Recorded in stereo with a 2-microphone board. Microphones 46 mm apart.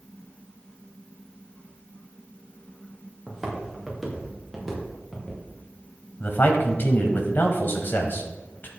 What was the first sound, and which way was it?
Footsteps, centre (ahead or behind).